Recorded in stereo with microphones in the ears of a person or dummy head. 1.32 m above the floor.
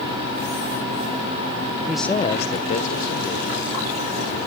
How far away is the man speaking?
About 0.6 m.